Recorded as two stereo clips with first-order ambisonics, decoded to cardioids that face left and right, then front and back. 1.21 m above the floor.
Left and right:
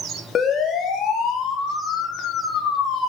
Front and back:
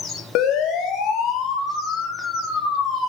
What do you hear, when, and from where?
0.3 s a siren: 30° left, 3 m; by 3.1 s 50° left, 4 m